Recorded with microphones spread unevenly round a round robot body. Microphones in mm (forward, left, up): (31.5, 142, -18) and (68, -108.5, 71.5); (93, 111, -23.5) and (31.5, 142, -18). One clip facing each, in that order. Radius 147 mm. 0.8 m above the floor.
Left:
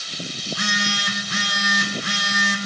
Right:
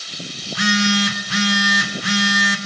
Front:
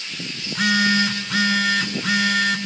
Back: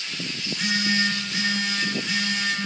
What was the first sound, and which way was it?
A phone buzzing, 55° right.